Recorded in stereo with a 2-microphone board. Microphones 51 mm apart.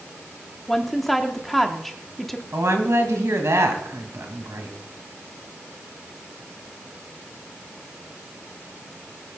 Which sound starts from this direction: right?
A woman speaking, at 2.5 s.